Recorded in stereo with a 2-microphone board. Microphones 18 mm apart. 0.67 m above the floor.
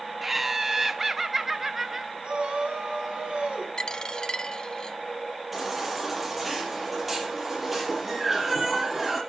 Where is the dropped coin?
40° left (ahead or behind), 0.5 m.